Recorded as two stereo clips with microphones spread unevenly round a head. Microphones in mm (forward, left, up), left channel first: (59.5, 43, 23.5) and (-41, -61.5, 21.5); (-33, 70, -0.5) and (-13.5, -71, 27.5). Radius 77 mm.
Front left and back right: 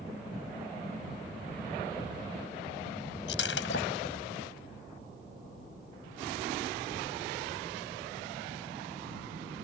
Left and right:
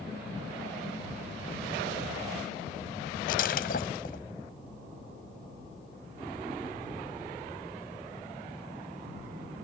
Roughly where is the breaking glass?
Ahead left.